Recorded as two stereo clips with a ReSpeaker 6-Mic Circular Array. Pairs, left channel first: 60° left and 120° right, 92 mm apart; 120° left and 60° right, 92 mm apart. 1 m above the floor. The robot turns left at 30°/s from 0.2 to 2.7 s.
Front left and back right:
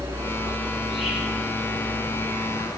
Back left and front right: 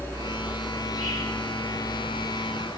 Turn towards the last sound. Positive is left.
turn(degrees=105)